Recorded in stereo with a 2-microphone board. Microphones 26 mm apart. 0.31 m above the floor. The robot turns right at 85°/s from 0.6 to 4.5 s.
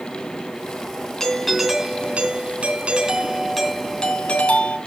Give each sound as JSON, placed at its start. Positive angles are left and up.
{"t": 1.2, "sound": "a doorbell", "azimuth_deg": 155, "distance_m": 2.0}